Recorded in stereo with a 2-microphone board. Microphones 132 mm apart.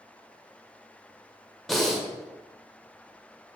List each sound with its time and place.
1.7 s breathing: centre (ahead or behind), 0.6 m